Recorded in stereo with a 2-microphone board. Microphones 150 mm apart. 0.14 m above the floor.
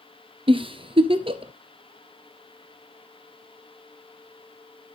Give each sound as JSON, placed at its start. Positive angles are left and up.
{"t": 0.5, "sound": "a giggle", "side_deg": -40, "distance_m": 0.7}